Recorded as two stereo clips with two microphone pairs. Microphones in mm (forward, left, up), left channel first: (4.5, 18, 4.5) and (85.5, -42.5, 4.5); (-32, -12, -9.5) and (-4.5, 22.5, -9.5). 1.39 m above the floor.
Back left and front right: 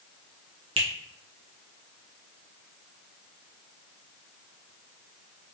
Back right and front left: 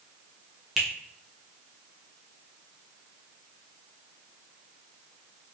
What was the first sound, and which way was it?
A finger snap, 25° right.